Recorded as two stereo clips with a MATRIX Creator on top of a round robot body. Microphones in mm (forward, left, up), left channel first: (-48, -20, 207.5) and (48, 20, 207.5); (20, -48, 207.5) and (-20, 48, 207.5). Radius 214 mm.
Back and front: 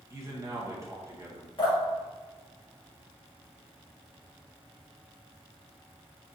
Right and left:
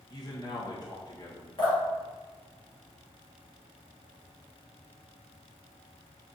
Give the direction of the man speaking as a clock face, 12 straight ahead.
1 o'clock.